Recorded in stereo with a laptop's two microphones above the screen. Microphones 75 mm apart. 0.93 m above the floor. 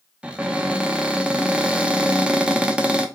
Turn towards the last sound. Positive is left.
turn(degrees=-15)  # may be behind; listen again after turning